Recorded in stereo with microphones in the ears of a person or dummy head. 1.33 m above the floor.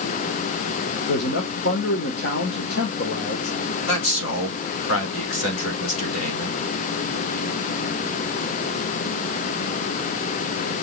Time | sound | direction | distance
1.1 | a man speaking | 60° left (ahead or behind) | 1.4 m
3.9 | a man speaking | 85° left | 3.5 m